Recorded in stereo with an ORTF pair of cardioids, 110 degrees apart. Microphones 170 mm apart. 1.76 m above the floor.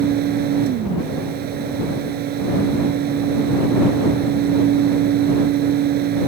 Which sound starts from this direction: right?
A fan, at 0.0 s.